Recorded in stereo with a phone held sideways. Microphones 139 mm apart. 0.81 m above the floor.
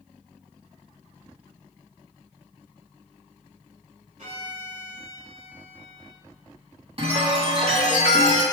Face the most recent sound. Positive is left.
turn(degrees=-40)  # may be behind; listen again after turning